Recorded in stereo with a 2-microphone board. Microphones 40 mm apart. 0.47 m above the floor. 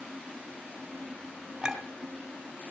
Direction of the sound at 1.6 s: 10° right (ahead or behind).